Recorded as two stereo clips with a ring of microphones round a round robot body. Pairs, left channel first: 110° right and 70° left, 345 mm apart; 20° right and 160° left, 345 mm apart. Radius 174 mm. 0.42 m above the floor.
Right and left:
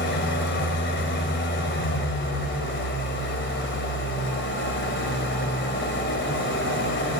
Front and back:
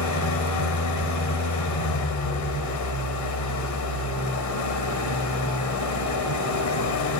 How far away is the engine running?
About 2 m.